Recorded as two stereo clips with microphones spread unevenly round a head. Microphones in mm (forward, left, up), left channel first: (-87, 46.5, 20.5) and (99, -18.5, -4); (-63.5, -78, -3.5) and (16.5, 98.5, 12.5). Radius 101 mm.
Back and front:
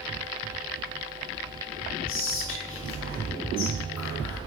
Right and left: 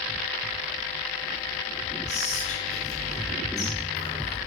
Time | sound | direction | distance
2.1 | whispering | 165° right | 3 m